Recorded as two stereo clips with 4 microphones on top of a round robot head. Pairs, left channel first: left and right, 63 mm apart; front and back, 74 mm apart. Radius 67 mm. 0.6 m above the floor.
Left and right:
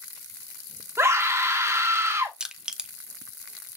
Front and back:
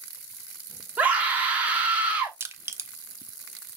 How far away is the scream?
About 1.4 m.